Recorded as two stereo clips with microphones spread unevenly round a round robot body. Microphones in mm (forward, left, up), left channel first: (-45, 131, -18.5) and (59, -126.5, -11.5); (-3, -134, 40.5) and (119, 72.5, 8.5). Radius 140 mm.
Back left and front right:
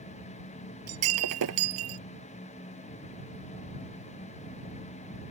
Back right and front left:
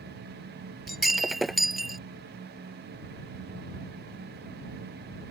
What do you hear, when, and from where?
0.9 s breaking glass: 30° right